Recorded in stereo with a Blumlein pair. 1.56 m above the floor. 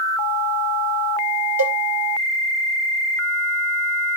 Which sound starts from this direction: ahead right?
A cowbell, at 1.6 s.